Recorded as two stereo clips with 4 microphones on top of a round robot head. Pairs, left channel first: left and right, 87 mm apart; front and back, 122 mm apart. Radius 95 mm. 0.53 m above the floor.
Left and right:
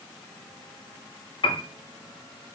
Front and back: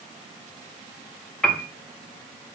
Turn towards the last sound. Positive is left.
turn(degrees=85)